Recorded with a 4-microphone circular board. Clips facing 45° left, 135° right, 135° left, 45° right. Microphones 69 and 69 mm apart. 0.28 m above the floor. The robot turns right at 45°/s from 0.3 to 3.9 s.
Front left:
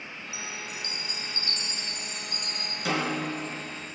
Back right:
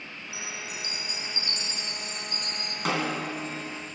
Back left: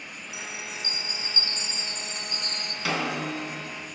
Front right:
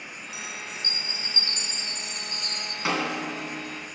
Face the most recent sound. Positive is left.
turn(degrees=-65)